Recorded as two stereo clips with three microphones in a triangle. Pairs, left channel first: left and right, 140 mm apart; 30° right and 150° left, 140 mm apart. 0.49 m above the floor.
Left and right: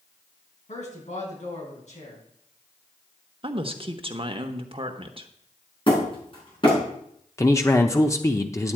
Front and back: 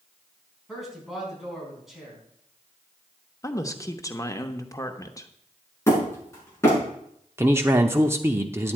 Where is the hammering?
40° left, 5.5 m.